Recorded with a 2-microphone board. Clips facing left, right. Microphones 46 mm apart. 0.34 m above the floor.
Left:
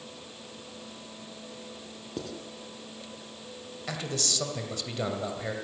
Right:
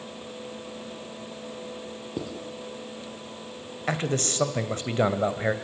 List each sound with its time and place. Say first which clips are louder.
2.2 s writing: right 3 dB; 10° right (ahead or behind), 3 m
3.9 s a man speaking: right 7 dB; 35° right (ahead or behind), 2 m